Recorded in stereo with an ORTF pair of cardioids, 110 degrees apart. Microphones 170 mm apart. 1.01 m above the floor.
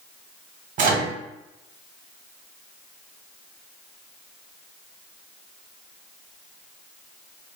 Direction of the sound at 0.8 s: 55° right.